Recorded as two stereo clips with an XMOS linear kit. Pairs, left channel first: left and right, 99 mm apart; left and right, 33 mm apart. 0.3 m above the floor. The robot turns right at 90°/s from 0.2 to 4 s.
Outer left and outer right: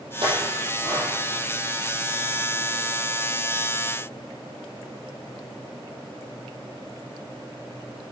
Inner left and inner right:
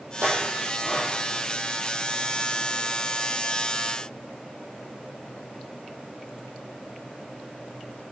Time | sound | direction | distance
0.2 | a clink | 75° right (ahead or behind) | 6 m